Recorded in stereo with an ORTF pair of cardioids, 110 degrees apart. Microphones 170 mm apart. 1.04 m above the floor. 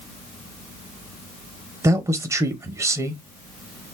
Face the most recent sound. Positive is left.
turn(degrees=-20)